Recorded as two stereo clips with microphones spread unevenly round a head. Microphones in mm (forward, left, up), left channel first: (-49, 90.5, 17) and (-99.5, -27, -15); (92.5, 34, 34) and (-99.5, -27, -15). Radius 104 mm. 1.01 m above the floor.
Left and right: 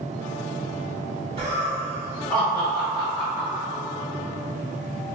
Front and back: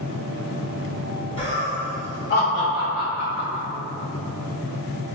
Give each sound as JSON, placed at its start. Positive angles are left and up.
{"t": 1.4, "sound": "laughter", "azimuth_deg": -55, "distance_m": 1.5}